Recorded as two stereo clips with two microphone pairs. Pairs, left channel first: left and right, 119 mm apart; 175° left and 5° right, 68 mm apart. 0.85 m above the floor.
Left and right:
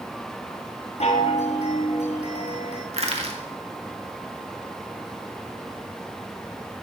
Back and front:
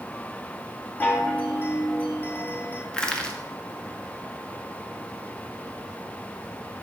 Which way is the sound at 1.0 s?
110° left.